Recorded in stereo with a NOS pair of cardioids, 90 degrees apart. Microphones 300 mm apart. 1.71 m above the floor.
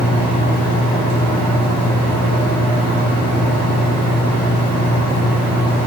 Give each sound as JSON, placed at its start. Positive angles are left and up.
{"t": 0.0, "sound": "a fan", "azimuth_deg": -60, "distance_m": 0.9}